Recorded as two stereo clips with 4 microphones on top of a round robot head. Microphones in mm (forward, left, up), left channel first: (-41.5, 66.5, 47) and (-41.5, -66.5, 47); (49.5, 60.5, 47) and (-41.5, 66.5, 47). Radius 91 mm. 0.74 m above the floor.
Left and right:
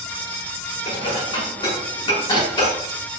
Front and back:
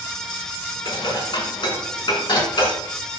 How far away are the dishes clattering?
About 5.5 m.